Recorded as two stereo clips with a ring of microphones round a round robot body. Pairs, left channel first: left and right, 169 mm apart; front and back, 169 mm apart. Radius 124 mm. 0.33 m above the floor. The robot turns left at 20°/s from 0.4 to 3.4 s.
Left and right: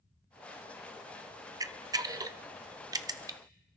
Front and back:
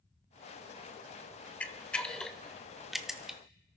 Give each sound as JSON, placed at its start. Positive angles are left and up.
{"t": 1.6, "sound": "a camera shutter", "azimuth_deg": -70, "distance_m": 0.5}